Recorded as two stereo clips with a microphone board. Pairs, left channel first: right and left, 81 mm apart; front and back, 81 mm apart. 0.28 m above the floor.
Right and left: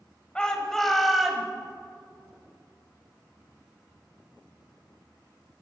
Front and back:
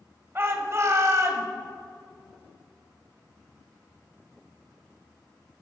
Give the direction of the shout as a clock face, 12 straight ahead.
5 o'clock.